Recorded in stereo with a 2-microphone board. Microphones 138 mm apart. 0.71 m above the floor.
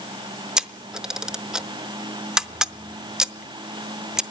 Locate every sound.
0.6 s a camera shutter: 5° right (ahead or behind), 0.5 m